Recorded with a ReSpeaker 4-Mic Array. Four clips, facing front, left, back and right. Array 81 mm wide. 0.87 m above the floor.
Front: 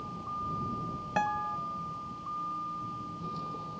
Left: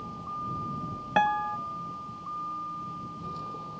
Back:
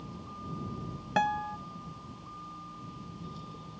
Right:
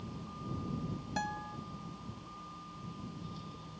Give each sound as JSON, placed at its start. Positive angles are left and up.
{"t": 0.0, "sound": "a vehicle", "azimuth_deg": 50}
{"t": 1.2, "sound": "a guitar", "azimuth_deg": 100}